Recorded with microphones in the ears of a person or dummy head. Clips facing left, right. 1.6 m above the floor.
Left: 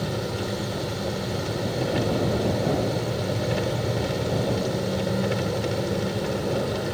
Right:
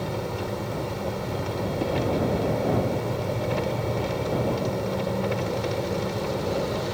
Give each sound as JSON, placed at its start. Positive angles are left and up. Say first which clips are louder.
{"t": 0.0, "sound": "an engine running", "louder": "left 1 dB", "side_deg": 10}